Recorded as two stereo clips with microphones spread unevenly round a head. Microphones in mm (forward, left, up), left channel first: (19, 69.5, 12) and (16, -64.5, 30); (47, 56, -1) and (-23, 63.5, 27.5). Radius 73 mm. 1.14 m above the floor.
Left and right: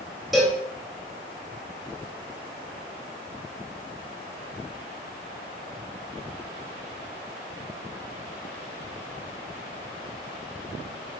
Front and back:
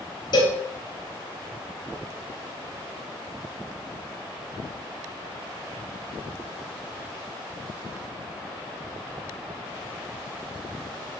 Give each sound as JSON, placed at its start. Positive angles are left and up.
{"t": 0.3, "sound": "a cowbell", "azimuth_deg": 0, "distance_m": 4.0}